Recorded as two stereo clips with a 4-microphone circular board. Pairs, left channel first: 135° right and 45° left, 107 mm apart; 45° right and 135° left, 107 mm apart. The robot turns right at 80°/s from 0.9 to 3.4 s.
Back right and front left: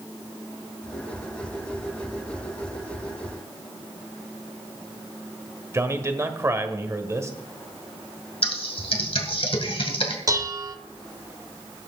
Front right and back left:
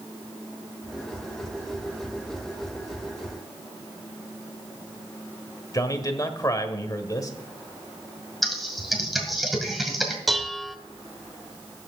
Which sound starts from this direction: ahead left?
Dishes clattering, at 10.3 s.